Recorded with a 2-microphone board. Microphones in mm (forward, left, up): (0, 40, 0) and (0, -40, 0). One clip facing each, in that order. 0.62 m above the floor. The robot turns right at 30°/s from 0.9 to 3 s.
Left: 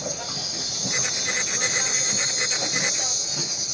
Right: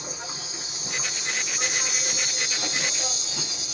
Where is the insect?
105° left, 2 m; by 3.8 s 170° left, 2 m.